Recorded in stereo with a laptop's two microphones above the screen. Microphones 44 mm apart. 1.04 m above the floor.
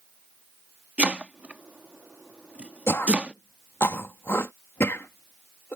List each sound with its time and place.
1.0 s chopping: 30° right (ahead or behind)
2.9 s throat clearing: 70° left (ahead or behind)